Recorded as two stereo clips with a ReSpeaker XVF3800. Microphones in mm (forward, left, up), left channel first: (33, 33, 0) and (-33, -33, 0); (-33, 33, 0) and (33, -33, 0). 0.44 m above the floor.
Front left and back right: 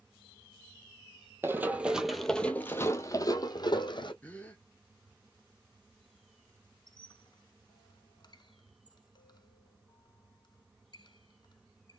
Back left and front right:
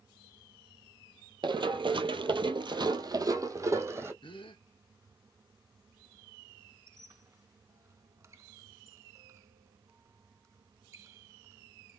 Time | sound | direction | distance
1.4 | running footsteps | 70° right | 0.9 m
4.2 | a gasp | 115° left | 1.6 m
6.9 | a squeak | 10° left | 0.8 m